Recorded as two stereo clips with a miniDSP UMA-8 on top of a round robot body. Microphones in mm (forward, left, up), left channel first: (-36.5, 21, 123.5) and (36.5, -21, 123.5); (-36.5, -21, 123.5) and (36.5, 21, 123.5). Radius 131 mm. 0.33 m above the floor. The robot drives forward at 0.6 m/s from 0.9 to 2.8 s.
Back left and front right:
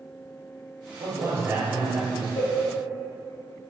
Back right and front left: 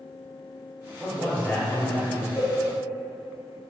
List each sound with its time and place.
1.0 s a man speaking: 65° right, 1.6 m; by 2.3 s 100° right, 1.5 m
2.4 s a cowbell: 90° left, 1.9 m; by 2.5 s 95° left, 1.9 m